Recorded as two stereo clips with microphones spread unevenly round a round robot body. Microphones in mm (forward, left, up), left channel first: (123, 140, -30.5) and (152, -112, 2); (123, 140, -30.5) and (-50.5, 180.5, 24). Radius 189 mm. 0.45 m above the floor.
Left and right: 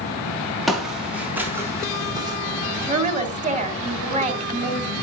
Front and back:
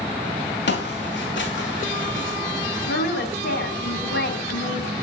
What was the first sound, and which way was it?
Footsteps, 5° left.